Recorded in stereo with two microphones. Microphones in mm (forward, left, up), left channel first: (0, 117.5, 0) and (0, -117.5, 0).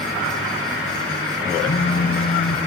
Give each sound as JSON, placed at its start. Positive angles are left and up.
{"t": 1.7, "sound": "a phone buzzing", "side_deg": 60, "distance_m": 1.2}